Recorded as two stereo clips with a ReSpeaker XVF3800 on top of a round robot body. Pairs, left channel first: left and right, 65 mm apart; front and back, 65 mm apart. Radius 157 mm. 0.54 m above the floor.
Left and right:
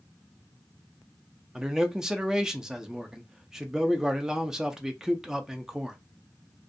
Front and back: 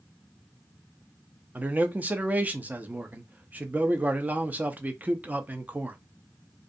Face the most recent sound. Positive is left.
turn(degrees=-155)